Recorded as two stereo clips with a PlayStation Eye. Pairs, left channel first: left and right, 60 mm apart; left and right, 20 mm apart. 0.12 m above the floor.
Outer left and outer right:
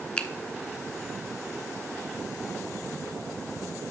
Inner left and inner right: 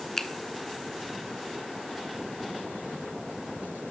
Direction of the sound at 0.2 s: 20° left (ahead or behind).